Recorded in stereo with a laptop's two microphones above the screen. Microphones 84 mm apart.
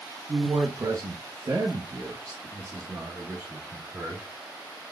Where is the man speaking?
40° right (ahead or behind), 1.0 m; by 4.3 s 25° right (ahead or behind), 2.0 m.